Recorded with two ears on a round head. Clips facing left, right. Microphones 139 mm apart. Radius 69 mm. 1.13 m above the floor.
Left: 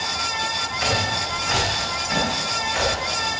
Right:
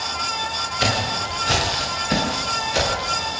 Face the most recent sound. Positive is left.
turn(degrees=-50)  # may be behind; listen again after turning